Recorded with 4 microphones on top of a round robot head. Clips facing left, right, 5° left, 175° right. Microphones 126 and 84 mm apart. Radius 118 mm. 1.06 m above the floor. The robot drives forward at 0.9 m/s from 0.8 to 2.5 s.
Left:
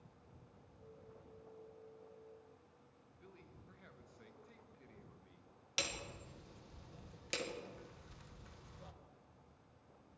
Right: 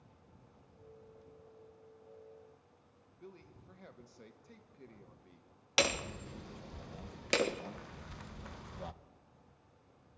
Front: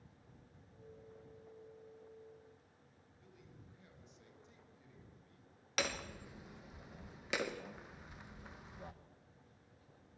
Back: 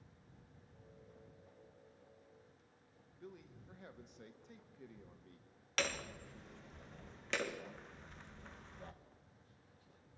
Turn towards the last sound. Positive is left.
turn(degrees=-80)